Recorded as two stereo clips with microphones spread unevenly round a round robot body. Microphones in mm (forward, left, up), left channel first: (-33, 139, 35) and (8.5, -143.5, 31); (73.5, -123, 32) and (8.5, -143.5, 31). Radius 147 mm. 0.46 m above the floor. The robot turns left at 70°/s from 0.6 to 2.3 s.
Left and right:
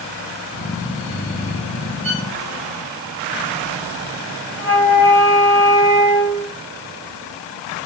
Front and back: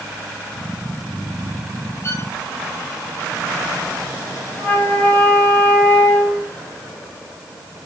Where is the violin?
35° right, 5 m; by 2.3 s 50° right, 5 m.